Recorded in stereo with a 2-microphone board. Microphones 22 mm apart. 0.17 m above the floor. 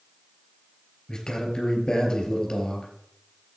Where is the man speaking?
40° left (ahead or behind), 3 m.